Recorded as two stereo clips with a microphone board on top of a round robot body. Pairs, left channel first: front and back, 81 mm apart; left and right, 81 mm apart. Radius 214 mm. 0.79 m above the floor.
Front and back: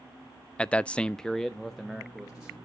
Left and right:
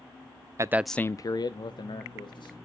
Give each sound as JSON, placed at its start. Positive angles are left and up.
{"t": 0.6, "sound": "a man speaking", "azimuth_deg": -70, "distance_m": 0.6}